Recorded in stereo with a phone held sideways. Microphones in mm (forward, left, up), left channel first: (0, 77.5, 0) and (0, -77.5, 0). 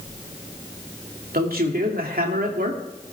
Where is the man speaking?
75° right (ahead or behind), 2.5 m.